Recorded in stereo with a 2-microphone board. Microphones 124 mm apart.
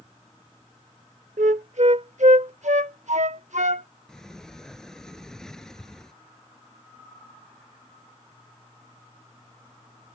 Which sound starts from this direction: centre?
A sliding door, at 4.1 s.